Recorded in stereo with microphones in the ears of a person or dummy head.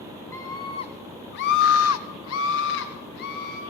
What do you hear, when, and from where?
0.3 s a scream: 15° left (ahead or behind), 2 m; by 3.6 s 55° left (ahead or behind), 3.5 m